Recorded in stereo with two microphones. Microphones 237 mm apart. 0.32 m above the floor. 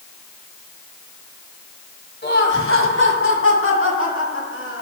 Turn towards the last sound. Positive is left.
turn(degrees=60)  # may be behind; listen again after turning